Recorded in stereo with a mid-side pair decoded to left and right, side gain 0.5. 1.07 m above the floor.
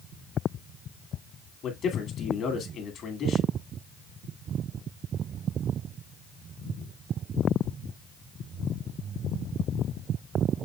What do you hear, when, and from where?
1.6 s a man speaking: 55° left, 2 m